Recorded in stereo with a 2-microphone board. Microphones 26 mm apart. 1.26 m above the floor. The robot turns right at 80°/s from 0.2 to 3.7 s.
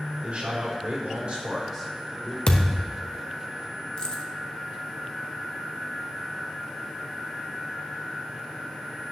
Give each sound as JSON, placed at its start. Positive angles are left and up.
{"t": 0.2, "sound": "a man speaking", "azimuth_deg": -130, "distance_m": 4.0}
{"t": 2.5, "sound": "a thud", "azimuth_deg": 90, "distance_m": 1.2}
{"t": 4.0, "sound": "keys jangling", "side_deg": 35, "distance_m": 1.2}